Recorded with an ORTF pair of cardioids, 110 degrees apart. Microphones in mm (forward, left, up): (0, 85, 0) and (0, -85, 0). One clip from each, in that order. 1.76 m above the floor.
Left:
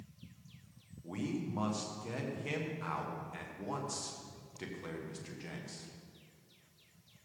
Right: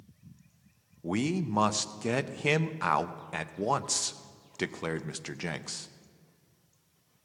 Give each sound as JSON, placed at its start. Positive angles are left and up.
{"t": 1.0, "sound": "a man speaking", "azimuth_deg": -70, "distance_m": 0.7}